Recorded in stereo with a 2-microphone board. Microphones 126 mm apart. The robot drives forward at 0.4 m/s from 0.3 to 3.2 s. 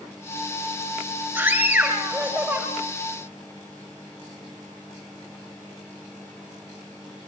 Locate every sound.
1.4 s a scream: 10° right (ahead or behind), 9.5 m